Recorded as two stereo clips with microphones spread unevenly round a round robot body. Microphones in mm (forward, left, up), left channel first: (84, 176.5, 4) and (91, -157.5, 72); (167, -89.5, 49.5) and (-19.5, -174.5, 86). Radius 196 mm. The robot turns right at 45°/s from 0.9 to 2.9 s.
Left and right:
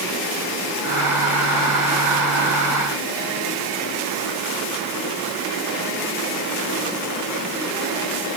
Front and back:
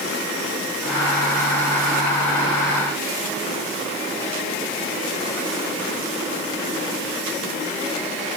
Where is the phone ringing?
I don't hear a phone ringing.